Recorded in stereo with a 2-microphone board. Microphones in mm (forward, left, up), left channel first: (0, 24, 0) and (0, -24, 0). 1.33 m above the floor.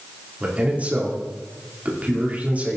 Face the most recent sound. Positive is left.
turn(degrees=-30)  # may be behind; listen again after turning